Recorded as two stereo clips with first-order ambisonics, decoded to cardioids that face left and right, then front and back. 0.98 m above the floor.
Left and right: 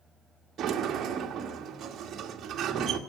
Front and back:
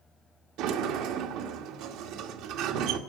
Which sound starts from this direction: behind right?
A sliding door, at 0.6 s.